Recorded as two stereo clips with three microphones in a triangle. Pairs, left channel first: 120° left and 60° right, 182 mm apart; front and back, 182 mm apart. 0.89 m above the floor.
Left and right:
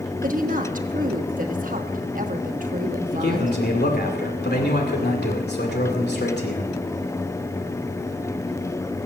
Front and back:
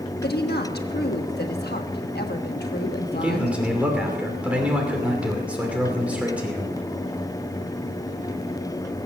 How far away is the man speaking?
About 2.5 m.